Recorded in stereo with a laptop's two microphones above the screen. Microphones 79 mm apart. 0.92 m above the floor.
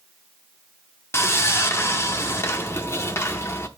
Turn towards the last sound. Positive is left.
turn(degrees=35)  # may be behind; listen again after turning